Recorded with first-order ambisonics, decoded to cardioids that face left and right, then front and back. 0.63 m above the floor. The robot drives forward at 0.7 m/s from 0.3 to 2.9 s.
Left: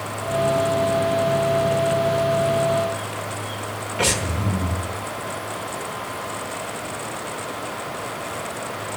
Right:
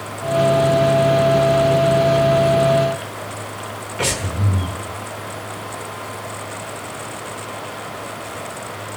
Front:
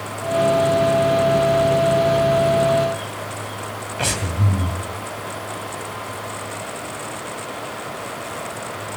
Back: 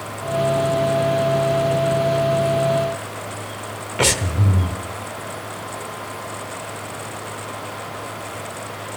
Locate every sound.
4.0 s breathing: straight behind, 1.3 m